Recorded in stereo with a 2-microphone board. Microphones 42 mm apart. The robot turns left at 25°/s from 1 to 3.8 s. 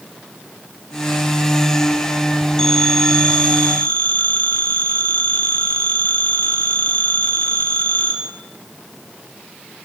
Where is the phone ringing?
165° left, 3 m; by 8.1 s 135° left, 3 m.